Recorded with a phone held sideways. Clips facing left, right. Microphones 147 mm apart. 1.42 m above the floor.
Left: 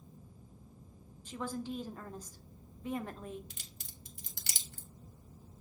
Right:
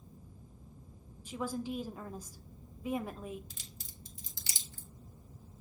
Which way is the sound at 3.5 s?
60° left (ahead or behind).